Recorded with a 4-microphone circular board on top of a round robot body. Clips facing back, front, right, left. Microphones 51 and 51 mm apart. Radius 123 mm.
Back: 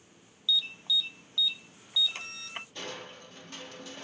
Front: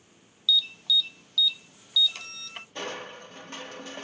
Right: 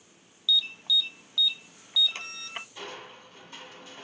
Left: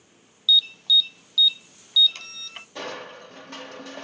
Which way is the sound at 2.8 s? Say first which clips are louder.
Front 5 dB, left 7 dB; 60° left.